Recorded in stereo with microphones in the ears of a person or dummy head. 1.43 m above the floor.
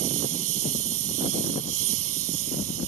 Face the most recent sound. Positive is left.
turn(degrees=-80)